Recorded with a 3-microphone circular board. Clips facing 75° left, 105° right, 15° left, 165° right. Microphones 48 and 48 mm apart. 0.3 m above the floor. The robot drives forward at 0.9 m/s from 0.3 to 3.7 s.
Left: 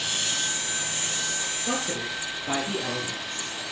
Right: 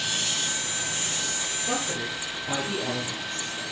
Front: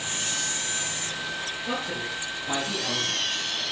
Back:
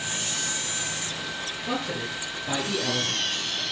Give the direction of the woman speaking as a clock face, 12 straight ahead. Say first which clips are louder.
Even, back 2 dB; 9 o'clock.